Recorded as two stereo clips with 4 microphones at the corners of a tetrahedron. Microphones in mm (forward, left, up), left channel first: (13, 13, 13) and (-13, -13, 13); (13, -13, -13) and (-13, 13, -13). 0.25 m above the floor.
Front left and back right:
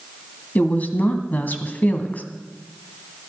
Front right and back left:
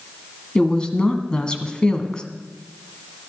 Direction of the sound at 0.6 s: 15° left.